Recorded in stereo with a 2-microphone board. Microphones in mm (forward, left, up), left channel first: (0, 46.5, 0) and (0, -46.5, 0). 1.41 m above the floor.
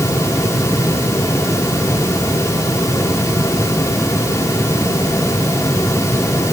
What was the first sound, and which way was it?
Only background noise.